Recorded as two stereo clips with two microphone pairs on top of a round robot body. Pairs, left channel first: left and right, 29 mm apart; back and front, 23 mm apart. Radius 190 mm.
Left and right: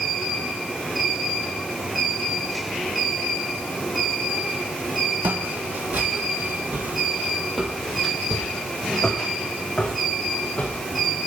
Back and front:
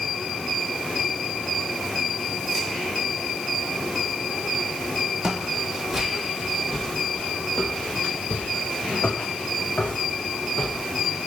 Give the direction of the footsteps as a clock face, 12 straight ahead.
2 o'clock.